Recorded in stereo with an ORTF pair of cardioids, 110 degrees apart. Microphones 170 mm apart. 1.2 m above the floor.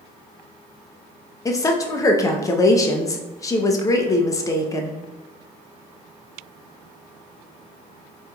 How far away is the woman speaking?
About 0.6 m.